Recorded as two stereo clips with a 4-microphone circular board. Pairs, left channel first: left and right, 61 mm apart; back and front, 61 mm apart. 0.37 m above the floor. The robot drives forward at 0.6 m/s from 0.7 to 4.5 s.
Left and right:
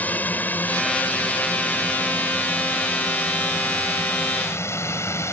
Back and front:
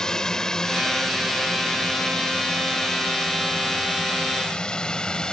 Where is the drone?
110° left; by 5.3 s 105° left.